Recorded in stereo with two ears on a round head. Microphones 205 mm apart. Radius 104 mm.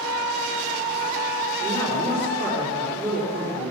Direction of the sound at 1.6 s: 35° right (ahead or behind).